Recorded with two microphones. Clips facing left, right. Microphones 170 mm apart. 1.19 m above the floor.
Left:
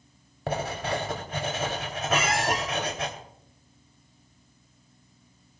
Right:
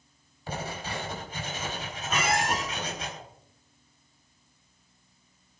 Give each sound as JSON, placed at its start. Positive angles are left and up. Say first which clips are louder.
{"t": 0.5, "sound": "writing", "louder": "left 6 dB", "side_deg": 75, "distance_m": 3.0}
{"t": 2.1, "sound": "a squeak", "louder": "left 1 dB", "side_deg": 5, "distance_m": 8.5}